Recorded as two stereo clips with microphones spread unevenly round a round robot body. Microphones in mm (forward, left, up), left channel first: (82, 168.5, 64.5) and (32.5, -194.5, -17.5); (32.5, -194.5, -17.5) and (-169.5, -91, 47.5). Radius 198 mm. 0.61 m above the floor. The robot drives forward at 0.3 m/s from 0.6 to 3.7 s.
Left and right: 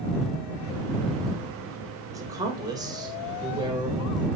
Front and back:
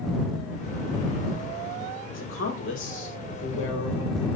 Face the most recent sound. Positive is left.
turn(degrees=-25)